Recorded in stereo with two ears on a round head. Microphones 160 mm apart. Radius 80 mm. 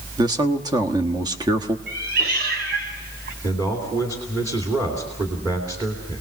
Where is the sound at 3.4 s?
20° right (ahead or behind), 3 m.